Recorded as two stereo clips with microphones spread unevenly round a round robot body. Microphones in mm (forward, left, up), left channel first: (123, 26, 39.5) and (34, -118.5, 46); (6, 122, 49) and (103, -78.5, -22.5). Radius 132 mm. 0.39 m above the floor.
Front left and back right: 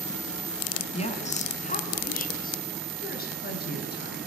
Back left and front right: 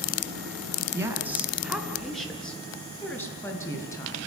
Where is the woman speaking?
10° left, 5 m; by 4.2 s 40° left, 8 m.